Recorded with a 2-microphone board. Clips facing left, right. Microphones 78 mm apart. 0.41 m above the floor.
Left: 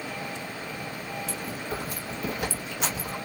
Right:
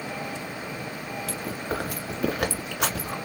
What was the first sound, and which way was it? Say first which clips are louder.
Chewing: right 3 dB; 75° right (ahead or behind).